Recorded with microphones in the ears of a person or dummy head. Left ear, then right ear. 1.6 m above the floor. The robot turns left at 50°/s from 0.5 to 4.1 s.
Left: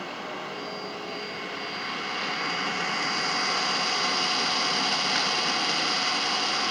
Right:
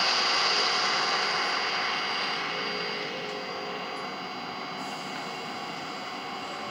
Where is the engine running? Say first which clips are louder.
Right 10 dB; 105° right, 1.0 m; by 6.7 s 75° left, 1.0 m.